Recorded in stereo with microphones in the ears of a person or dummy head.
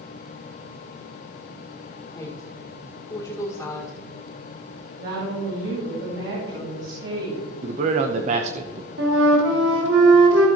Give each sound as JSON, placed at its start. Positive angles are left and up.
{"t": 2.1, "sound": "a woman speaking", "side_deg": 20, "distance_m": 1.7}
{"t": 5.0, "sound": "a woman speaking", "side_deg": -60, "distance_m": 3.0}
{"t": 7.6, "sound": "a man speaking", "side_deg": -40, "distance_m": 0.8}
{"t": 9.0, "sound": "a flute", "side_deg": -75, "distance_m": 2.5}